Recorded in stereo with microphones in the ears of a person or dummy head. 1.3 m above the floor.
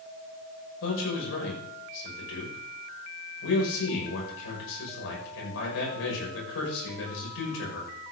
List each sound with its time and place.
0.8 s a man speaking: 80° left, 6.5 m